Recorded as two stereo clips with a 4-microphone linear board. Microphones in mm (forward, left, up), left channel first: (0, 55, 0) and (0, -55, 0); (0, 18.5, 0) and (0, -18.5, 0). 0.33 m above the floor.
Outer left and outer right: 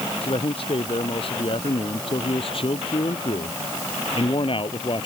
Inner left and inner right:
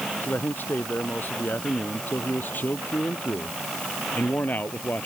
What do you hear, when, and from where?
0.2 s a man speaking: 55° left (ahead or behind); by 5.1 s 50° left (ahead or behind)